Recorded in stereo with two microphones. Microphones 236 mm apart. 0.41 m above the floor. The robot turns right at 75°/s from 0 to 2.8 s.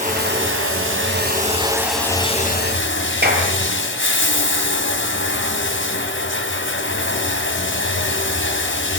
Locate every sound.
0.0 s running water: 145° right, 3 m; by 9.0 s 65° left, 3 m
3.2 s a clap: 45° right (ahead or behind), 7 m